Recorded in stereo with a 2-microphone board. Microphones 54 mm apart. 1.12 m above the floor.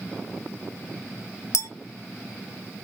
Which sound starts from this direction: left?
A clink, at 1.5 s.